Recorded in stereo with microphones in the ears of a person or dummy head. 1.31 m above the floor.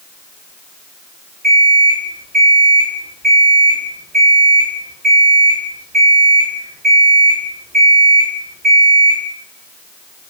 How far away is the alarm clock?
About 1.4 m.